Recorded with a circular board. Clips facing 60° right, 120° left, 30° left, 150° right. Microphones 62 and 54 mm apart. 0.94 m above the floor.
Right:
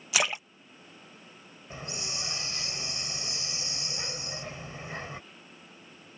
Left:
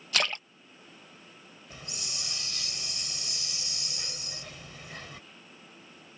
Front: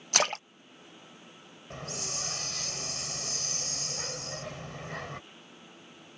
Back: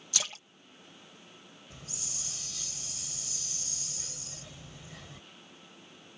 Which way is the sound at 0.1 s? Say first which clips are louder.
Right 1 dB, front 11 dB; 20° left.